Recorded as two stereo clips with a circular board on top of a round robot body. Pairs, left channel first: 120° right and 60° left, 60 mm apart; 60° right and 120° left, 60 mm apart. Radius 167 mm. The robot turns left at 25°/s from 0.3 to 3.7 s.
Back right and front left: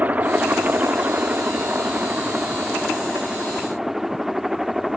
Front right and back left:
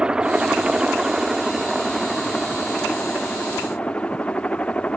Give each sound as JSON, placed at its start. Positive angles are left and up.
{"t": 0.0, "sound": "a helicopter", "azimuth_deg": 65}